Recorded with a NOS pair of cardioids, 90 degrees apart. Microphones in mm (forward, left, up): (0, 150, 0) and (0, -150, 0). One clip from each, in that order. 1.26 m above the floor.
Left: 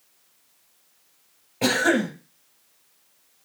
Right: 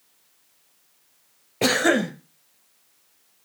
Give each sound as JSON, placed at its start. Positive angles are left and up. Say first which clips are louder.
{"t": 1.6, "sound": "a cough", "louder": "right 1 dB", "azimuth_deg": -20, "distance_m": 0.8}